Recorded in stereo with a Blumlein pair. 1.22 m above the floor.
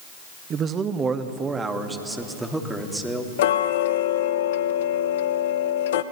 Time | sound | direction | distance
0.5 | a man speaking | 30° right | 1.5 m
3.4 | ticking | 55° left | 1.1 m